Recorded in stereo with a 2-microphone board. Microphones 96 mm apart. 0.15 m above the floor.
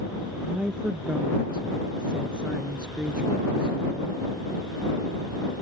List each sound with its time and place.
0.4 s a woman speaking: 10° right (ahead or behind)